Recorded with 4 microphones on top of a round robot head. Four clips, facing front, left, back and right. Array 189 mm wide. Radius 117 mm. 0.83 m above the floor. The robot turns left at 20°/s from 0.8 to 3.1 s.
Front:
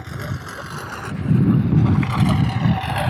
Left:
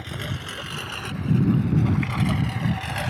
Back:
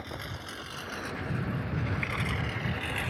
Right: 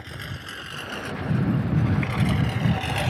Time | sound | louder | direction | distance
0.0 | a lawn mower | left 4 dB, front 9 dB | 20° left | ?